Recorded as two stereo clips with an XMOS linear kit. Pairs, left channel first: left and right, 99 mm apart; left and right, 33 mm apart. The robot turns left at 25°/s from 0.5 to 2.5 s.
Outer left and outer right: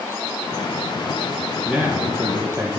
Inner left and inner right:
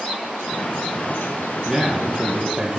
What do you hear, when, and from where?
1.6 s a man speaking: centre (ahead or behind), 1.9 m; by 2.8 s 15° right (ahead or behind), 1.9 m